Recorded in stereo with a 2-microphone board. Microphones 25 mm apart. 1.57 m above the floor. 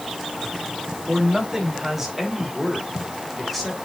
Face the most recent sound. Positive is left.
turn(degrees=0)  # may be behind; listen again after turning